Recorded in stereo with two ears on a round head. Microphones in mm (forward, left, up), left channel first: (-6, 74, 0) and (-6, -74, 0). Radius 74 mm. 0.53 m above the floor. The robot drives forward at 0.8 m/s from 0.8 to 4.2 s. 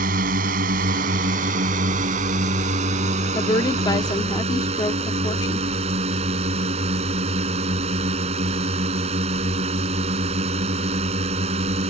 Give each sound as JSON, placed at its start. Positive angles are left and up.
{"t": 0.0, "sound": "a drone", "side_deg": -60}
{"t": 3.4, "sound": "a woman speaking", "side_deg": 25}